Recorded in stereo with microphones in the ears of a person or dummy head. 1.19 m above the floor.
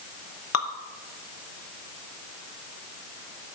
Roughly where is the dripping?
Left.